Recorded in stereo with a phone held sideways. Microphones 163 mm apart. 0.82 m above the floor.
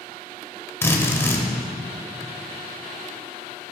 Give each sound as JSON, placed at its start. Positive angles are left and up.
{"t": 0.8, "sound": "a drill", "side_deg": 15, "distance_m": 1.2}